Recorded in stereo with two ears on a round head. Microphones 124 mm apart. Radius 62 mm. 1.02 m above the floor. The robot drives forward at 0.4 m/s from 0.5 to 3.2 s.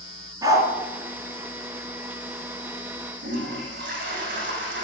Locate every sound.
0.4 s a dog barking: 25° right (ahead or behind), 4 m
3.2 s a toilet flushing: 70° right (ahead or behind), 8 m